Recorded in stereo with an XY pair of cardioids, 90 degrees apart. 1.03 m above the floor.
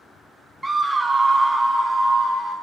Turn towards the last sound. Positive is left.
turn(degrees=-40)